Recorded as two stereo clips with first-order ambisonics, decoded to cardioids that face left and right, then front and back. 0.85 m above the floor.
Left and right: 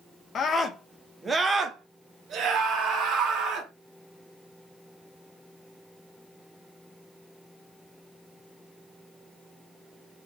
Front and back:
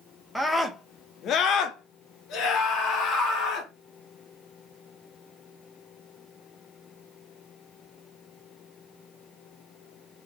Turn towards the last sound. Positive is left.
turn(degrees=-40)